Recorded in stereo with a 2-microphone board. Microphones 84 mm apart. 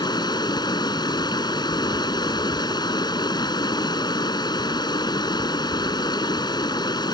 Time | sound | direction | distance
0.0 | running water | 60° left (ahead or behind) | ?